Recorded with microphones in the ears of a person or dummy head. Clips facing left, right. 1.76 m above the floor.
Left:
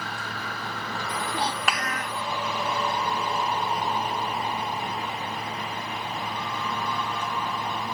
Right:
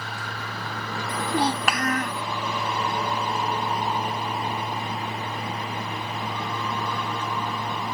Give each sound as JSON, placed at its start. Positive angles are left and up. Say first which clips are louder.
{"t": 1.1, "sound": "a child speaking", "louder": "right 6 dB", "side_deg": -45}